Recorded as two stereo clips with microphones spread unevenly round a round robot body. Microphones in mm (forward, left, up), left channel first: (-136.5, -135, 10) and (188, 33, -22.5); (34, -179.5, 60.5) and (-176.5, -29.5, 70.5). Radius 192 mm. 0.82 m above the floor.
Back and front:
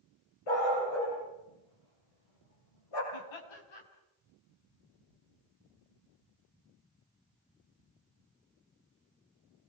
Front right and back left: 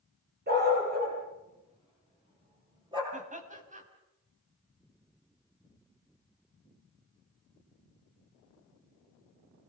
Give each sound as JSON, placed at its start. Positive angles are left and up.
{"t": 0.5, "sound": "a dog barking", "azimuth_deg": -165, "distance_m": 8.5}
{"t": 3.1, "sound": "laughter", "azimuth_deg": -155, "distance_m": 5.0}